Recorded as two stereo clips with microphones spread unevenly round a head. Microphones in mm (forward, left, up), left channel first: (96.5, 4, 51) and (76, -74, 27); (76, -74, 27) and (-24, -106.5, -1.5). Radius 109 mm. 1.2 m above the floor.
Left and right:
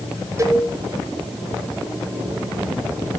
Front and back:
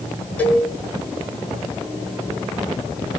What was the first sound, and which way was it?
A cowbell, 50° right.